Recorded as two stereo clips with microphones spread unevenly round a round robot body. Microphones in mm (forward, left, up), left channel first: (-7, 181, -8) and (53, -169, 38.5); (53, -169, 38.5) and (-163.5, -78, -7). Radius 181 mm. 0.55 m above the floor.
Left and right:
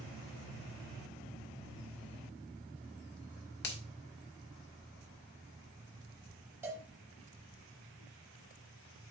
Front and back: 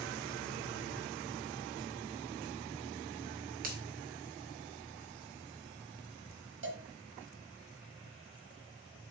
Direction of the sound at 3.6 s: 140° left.